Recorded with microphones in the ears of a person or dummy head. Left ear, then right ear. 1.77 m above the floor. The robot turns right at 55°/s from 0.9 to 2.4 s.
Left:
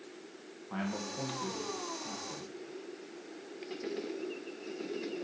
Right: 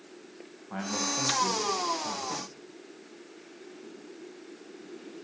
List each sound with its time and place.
0.7 s a man speaking: 175° right, 1.3 m; by 2.5 s 95° right, 1.3 m